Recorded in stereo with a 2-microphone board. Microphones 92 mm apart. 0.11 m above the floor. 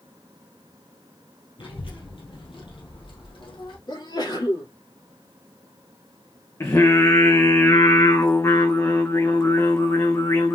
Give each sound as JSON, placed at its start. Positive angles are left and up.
{"t": 1.6, "sound": "a child speaking", "side_deg": 65, "distance_m": 1.8}
{"t": 3.9, "sound": "a sneeze", "side_deg": 50, "distance_m": 2.5}
{"t": 6.6, "sound": "singing", "side_deg": 30, "distance_m": 1.2}